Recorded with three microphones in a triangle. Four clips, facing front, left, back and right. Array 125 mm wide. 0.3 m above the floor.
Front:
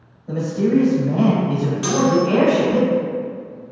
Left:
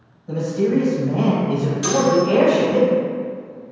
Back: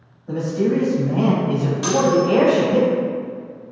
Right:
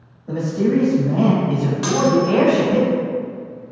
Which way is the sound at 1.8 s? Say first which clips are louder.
Even, even; 100° right.